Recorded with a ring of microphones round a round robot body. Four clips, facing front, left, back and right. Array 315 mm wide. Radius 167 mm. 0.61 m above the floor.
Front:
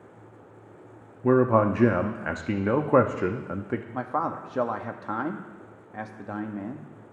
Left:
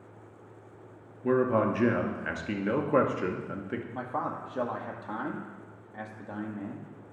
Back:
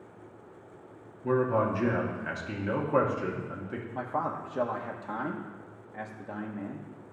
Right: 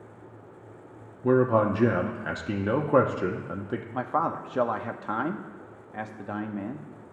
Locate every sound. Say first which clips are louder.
1.2 s a man speaking: right 3 dB, front 6 dB; 15° right, 0.8 m
3.9 s a man speaking: right 8 dB, front 2 dB; 50° right, 0.7 m